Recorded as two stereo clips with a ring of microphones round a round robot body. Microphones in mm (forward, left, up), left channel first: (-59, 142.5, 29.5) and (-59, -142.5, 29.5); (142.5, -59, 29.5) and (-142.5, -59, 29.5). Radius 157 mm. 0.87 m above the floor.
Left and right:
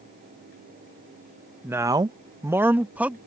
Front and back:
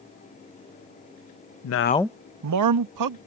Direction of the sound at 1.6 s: 10° right.